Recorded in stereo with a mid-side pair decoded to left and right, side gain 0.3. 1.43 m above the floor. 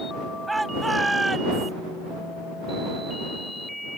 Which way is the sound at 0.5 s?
20° right.